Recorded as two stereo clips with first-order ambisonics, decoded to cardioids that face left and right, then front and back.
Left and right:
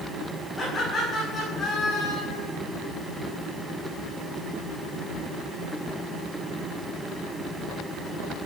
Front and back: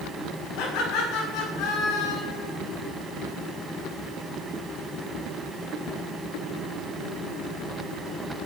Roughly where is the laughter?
Ahead.